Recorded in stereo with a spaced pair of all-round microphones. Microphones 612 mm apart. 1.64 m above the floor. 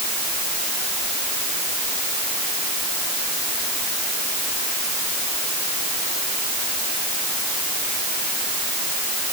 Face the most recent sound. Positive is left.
No sound to turn to.